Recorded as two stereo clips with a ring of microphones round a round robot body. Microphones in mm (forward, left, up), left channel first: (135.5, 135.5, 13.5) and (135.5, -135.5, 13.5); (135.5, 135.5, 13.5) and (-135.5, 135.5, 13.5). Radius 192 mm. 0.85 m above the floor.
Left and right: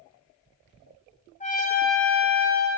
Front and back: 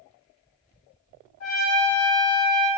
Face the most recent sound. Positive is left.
turn(degrees=25)